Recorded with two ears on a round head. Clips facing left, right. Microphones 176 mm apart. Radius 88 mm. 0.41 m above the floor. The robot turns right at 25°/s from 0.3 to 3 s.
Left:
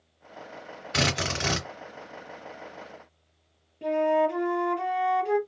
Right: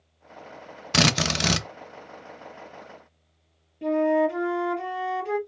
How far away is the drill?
About 0.6 m.